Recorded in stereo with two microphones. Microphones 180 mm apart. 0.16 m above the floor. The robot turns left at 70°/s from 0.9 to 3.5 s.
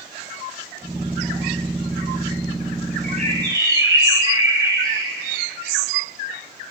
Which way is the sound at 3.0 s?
130° right.